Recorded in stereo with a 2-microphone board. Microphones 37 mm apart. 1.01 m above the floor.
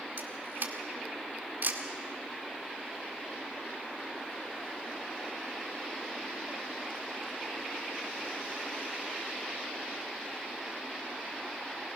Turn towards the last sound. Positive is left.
turn(degrees=-70)  # may be behind; listen again after turning